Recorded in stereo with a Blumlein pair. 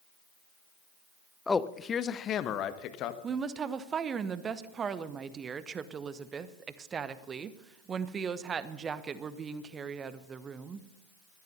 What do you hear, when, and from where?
1.5 s a man speaking: 10° left, 0.7 m; by 3.1 s 40° left, 1.5 m
3.2 s a woman speaking: 20° right, 1.0 m